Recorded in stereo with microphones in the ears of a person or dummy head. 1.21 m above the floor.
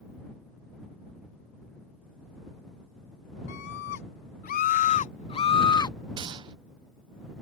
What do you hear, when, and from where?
3.5 s a scream: 65° left (ahead or behind); by 6.0 s 20° left (ahead or behind)
6.2 s a gunshot: 25° right (ahead or behind)